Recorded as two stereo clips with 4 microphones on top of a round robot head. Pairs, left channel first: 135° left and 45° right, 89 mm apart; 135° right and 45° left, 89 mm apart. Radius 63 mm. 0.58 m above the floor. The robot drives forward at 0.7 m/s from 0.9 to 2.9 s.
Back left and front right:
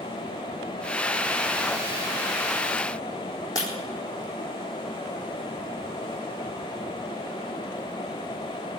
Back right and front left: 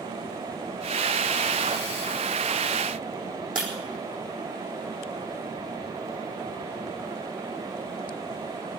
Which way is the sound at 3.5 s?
85° left.